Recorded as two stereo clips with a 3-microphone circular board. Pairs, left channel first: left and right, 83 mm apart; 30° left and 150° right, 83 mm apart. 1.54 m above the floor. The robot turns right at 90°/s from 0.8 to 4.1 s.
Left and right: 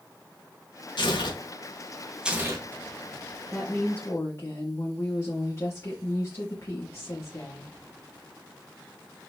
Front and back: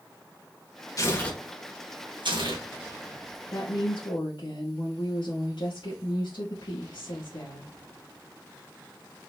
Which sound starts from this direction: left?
Tearing paper, at 1.0 s.